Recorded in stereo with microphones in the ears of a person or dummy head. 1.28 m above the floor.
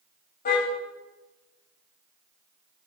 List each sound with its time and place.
0.5 s a car horn: 55° left (ahead or behind), 4 m